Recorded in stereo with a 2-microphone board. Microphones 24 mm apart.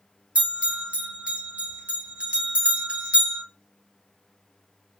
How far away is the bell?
About 2.5 m.